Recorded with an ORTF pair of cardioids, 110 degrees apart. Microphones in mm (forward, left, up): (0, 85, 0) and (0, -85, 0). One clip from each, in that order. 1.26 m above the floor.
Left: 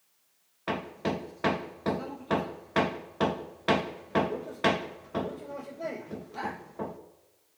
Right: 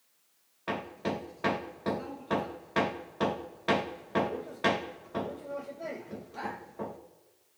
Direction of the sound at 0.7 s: 20° left.